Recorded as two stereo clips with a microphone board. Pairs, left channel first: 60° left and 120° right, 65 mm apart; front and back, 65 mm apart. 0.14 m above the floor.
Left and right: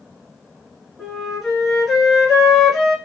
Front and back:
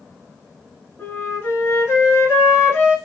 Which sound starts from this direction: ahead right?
A flute, at 1.0 s.